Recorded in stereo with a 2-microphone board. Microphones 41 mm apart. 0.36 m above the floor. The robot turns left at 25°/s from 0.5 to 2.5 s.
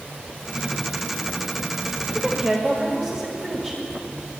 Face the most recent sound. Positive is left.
turn(degrees=10)  # may be behind; listen again after turning